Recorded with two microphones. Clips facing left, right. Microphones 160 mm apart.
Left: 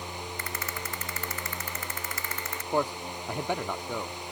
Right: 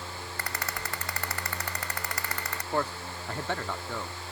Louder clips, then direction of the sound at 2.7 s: Left 3 dB; 15° left (ahead or behind).